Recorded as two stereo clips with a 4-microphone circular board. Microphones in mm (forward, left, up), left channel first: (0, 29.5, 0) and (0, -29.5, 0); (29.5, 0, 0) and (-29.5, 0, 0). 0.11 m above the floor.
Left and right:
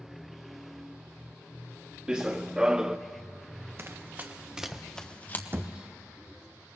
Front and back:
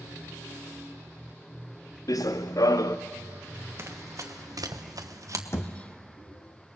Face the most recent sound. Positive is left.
turn(degrees=-40)